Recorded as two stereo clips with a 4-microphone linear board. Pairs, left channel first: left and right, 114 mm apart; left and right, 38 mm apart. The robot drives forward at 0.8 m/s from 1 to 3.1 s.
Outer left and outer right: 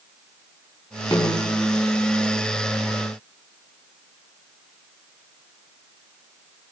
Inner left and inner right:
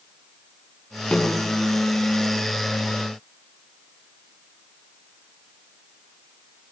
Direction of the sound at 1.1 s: 35° left (ahead or behind).